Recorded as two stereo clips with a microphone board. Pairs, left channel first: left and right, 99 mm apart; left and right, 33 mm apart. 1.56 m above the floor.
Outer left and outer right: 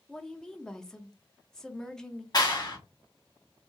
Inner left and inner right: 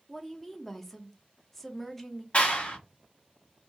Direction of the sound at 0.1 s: 5° left (ahead or behind).